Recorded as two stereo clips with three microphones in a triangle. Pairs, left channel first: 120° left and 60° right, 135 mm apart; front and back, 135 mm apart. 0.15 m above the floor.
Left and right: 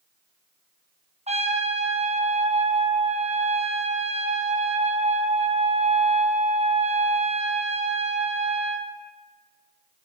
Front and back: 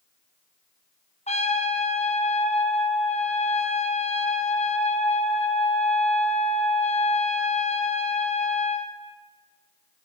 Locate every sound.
1.3 s a trumpet: 30° right, 3 m